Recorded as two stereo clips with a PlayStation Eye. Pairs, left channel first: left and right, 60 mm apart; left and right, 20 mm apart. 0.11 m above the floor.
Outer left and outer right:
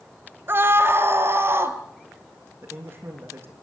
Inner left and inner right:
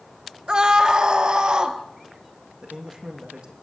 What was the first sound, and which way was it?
A scream, 40° right (ahead or behind).